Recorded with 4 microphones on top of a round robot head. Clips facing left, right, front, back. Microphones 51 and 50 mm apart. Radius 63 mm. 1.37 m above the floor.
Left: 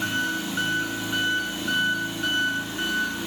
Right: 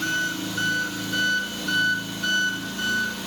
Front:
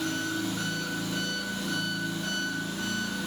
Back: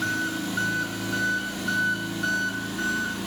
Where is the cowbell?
No cowbell in this recording.